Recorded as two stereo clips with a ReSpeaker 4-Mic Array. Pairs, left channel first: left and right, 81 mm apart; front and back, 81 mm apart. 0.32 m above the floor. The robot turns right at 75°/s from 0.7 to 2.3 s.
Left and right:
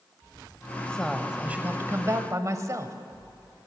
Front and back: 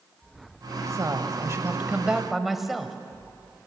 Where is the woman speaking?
160° left, 1.4 m; by 3.0 s 95° right, 1.4 m.